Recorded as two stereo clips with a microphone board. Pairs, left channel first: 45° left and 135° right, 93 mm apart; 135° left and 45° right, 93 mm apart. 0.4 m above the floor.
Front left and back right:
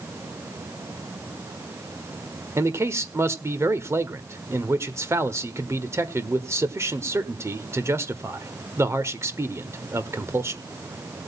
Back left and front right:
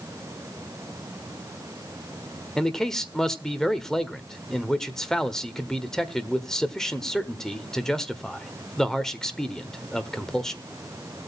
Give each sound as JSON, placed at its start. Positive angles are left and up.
{"t": 2.6, "sound": "a man speaking", "azimuth_deg": -145, "distance_m": 1.4}